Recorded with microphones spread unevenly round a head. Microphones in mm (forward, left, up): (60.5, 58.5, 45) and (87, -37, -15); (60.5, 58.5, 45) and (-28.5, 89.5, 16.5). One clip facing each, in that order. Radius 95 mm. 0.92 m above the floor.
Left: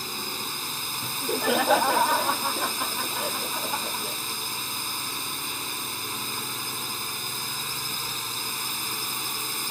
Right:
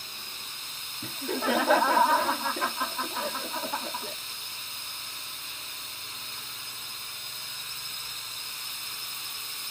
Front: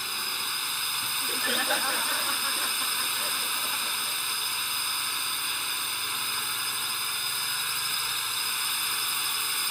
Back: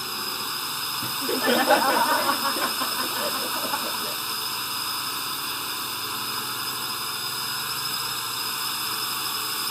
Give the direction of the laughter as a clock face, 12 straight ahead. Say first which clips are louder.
Left 2 dB, back 11 dB; 6 o'clock.